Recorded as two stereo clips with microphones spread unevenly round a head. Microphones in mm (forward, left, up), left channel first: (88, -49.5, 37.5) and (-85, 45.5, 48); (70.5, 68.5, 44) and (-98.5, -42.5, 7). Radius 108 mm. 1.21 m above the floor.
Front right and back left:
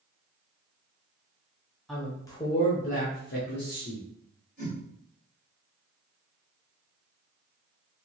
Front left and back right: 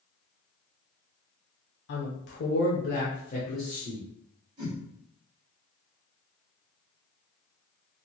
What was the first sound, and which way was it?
A woman speaking, 55° left.